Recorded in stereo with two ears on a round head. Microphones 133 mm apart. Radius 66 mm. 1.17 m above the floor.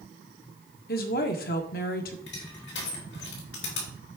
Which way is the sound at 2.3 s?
85° left.